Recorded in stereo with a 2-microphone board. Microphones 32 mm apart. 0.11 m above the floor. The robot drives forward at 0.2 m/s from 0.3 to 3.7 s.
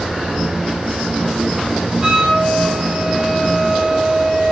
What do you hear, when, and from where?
2.0 s a flute: 20° right (ahead or behind), 0.6 m; by 4.5 s 15° right (ahead or behind), 1.0 m